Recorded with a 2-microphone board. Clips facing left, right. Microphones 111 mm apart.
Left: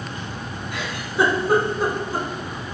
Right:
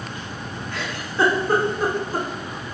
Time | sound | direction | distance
0.7 | a giggle | 15° left (ahead or behind) | 0.7 m